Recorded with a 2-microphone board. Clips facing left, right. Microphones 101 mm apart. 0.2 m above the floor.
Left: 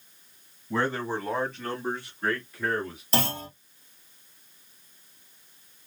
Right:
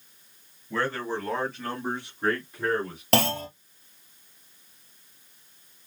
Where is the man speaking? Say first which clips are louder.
Left 1 dB; 20° left (ahead or behind), 1.5 m; by 3.0 s 35° right (ahead or behind), 2 m.